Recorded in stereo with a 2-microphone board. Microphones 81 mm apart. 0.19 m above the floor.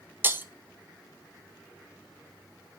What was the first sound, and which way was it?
Breaking glass, 25° right (ahead or behind).